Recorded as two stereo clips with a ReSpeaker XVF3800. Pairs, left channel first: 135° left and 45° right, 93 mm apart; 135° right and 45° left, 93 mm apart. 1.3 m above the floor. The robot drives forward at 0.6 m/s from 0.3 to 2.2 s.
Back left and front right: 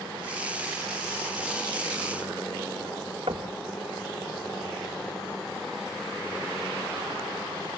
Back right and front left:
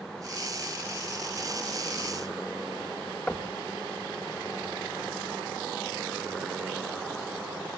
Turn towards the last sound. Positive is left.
turn(degrees=-60)